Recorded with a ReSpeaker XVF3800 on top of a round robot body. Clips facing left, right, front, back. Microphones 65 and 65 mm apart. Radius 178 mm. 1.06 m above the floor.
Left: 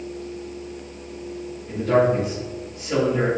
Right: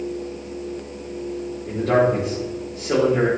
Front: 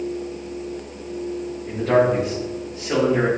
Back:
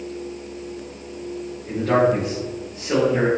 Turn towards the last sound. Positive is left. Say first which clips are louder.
# even, even
turn(degrees=-90)